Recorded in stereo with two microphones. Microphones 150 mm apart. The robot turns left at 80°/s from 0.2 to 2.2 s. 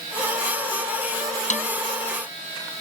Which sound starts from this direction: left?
A snare drum, at 1.5 s.